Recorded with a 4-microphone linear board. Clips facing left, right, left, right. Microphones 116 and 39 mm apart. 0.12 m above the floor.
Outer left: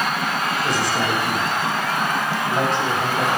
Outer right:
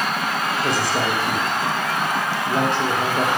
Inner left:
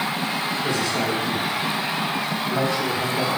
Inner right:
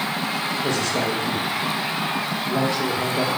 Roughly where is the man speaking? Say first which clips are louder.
Outer right 1 dB, inner right 1 dB; right.